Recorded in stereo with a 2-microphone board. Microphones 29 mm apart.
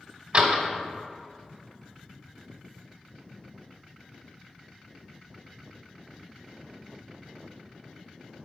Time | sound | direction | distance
0.3 | a door slam | 45° right (ahead or behind) | 1.0 m